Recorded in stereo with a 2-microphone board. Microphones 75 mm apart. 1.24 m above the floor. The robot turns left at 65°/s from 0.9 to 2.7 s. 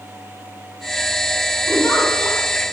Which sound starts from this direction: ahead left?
A giggle, at 1.7 s.